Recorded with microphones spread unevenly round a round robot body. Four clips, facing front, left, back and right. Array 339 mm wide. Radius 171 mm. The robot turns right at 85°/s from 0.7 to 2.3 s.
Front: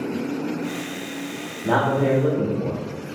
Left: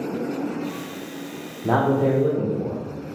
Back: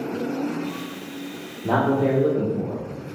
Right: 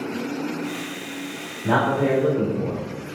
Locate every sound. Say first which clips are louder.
1.6 s a man speaking: left 1 dB, even; 95° left, 0.9 m; by 2.8 s 150° left, 0.9 m